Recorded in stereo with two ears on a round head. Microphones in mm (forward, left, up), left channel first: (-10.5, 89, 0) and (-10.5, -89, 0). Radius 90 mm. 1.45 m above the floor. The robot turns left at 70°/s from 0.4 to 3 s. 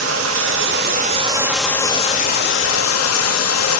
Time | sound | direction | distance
0.0 | running water | 95° right | 2.5 m